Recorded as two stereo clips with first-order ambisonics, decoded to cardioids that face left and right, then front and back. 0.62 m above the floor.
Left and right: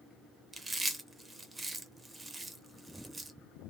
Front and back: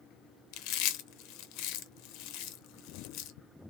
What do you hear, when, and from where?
0.5 s chewing: 10° right, 0.6 m